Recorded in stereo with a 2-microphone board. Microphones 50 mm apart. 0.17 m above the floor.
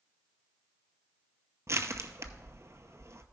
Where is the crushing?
60° right (ahead or behind), 0.7 m.